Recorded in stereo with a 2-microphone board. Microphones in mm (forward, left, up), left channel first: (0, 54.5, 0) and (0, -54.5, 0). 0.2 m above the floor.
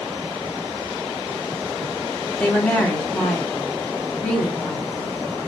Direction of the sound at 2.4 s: 5° left (ahead or behind).